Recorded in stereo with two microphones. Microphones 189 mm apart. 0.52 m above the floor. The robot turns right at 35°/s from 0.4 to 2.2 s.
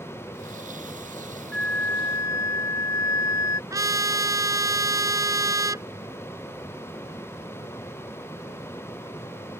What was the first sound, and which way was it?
A flute, 5° left (ahead or behind).